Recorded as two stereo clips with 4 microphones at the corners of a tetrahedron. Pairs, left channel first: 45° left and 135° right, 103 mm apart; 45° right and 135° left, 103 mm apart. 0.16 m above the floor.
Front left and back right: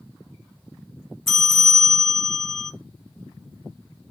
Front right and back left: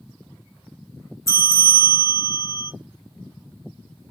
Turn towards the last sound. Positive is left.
turn(degrees=-35)